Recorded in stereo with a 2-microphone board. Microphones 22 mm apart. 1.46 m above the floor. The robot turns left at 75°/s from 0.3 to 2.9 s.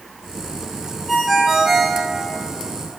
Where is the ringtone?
15° left, 0.8 m; by 2.0 s 55° right, 0.8 m.